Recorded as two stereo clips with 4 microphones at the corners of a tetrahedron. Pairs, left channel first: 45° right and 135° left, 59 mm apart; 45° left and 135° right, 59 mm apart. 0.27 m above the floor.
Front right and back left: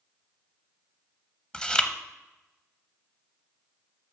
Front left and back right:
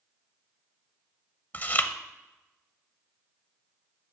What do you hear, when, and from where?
1.5 s chewing: 15° left, 0.7 m